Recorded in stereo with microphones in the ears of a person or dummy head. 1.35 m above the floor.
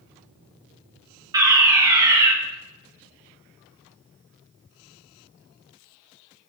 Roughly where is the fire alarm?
Right.